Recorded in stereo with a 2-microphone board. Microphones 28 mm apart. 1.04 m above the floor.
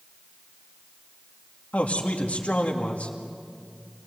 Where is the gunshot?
I don't hear a gunshot.